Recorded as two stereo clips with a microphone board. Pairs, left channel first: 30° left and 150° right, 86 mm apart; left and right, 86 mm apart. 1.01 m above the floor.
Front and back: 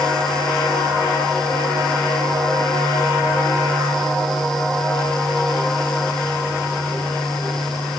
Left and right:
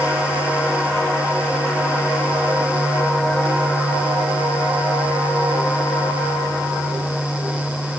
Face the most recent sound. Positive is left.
No sound to turn to.